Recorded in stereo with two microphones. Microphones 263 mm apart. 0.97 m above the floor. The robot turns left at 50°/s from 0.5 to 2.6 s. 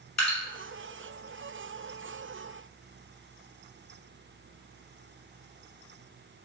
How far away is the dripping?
About 1.2 m.